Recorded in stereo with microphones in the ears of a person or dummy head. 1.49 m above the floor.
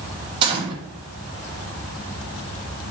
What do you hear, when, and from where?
0.4 s a gunshot: 30° right (ahead or behind), 1.0 m